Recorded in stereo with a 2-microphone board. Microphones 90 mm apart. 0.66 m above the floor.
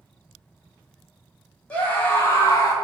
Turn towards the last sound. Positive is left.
turn(degrees=35)  # may be behind; listen again after turning